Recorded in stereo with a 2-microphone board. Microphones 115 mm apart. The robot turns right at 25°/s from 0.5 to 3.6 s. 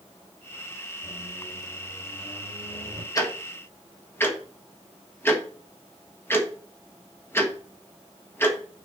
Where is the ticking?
30° left (ahead or behind), 1.4 m; by 8.8 s 20° left (ahead or behind), 1.4 m.